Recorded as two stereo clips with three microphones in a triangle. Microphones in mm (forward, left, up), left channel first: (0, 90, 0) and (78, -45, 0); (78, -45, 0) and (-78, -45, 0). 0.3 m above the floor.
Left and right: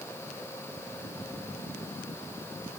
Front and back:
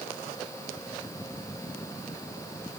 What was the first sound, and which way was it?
Only background noise.